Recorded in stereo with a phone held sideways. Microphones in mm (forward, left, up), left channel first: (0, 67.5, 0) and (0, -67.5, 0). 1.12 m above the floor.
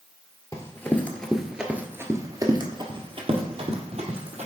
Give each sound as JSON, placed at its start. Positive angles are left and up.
{"t": 0.5, "sound": "running footsteps", "side_deg": 25, "distance_m": 1.3}